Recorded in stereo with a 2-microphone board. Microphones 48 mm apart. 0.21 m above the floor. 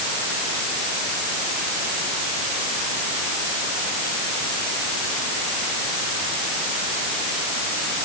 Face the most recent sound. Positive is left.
No sound to turn to.